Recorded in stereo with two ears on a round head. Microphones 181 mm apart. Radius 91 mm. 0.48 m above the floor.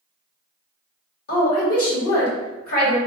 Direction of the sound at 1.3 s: 50° left (ahead or behind).